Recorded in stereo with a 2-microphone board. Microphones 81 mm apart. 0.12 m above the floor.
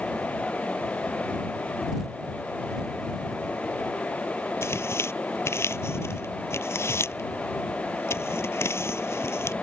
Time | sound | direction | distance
4.6 | tearing paper | 35° left (ahead or behind) | ?